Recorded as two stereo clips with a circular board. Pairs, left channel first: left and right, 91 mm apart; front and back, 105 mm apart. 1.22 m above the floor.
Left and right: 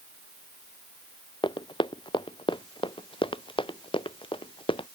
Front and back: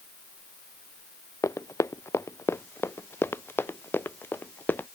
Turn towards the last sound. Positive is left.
turn(degrees=70)